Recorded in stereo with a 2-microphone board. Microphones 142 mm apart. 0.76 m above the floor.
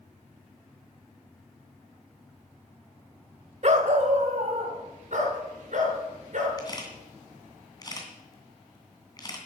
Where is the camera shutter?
30° left (ahead or behind), 2.5 m.